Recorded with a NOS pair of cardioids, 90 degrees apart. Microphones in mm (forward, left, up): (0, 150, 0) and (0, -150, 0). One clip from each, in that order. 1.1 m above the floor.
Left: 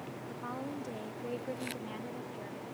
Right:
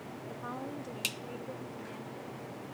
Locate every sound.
0.3 s a woman speaking: 5° left, 1.4 m; by 2.6 s 50° left, 2.5 m